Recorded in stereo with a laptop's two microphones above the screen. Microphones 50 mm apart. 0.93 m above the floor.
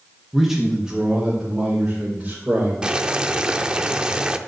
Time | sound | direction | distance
0.3 | a man speaking | 5° right (ahead or behind) | 1.1 m
2.8 | boiling | 20° right (ahead or behind) | 0.5 m